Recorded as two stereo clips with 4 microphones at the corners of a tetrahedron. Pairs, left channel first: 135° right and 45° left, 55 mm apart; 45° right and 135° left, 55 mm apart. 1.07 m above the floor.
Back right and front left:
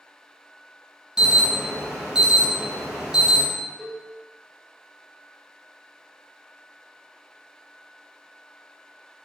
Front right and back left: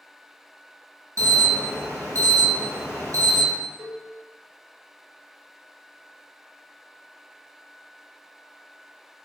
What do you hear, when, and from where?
1.2 s an alarm: 125° left, 0.9 m
3.8 s a cowbell: 120° left, 0.8 m